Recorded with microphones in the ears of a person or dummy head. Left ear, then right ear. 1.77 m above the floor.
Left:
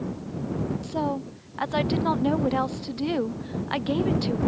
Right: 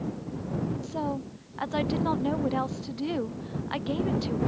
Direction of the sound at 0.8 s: 10° left (ahead or behind).